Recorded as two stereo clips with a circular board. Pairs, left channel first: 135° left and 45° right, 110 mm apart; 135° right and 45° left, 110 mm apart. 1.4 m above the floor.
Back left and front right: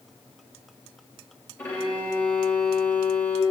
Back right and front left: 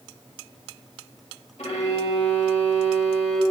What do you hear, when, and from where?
1.6 s a violin: 150° right, 1.8 m